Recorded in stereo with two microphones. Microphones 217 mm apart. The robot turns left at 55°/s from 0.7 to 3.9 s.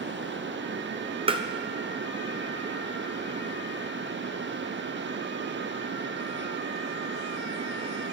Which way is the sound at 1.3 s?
25° right (ahead or behind).